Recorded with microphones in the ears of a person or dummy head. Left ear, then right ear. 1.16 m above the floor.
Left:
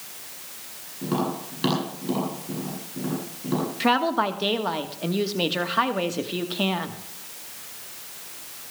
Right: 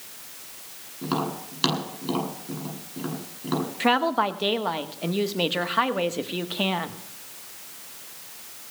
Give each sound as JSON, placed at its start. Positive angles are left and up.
{"t": 1.0, "sound": "tapping", "side_deg": -45, "distance_m": 8.5}
{"t": 3.8, "sound": "a woman speaking", "side_deg": -15, "distance_m": 1.2}